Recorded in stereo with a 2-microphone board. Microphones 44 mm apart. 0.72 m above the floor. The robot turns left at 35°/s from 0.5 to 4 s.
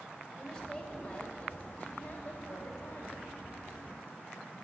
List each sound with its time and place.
0.4 s a woman speaking: 155° left, 1.5 m; by 3.2 s 60° left, 1.5 m